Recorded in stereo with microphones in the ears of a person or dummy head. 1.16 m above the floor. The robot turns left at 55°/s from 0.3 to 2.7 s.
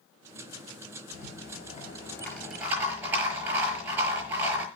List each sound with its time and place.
1.1 s a rattle: 80° left, 6 m; by 4.7 s 5° right, 6 m